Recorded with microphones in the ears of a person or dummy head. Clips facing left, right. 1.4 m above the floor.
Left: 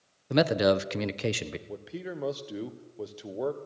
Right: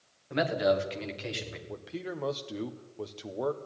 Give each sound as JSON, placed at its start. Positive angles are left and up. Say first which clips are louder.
{"t": 0.3, "sound": "a man speaking", "louder": "left 3 dB", "side_deg": 55, "distance_m": 1.0}
{"t": 1.7, "sound": "a man speaking", "louder": "even", "side_deg": 10, "distance_m": 1.0}